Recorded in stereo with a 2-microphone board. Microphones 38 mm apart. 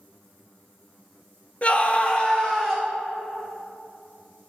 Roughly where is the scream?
Left.